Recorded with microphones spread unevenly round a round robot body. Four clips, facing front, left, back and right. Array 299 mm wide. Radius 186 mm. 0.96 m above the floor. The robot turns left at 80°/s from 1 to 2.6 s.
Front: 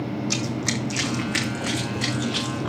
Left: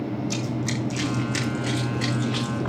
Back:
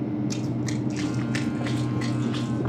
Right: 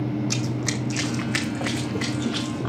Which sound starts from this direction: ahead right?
Running footsteps, at 0.3 s.